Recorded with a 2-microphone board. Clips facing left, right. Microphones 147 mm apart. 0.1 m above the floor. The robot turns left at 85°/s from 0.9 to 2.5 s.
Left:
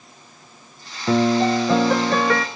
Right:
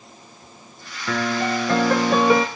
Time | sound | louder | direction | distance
1.1 | a piano | left 6 dB | 75° left | 0.5 m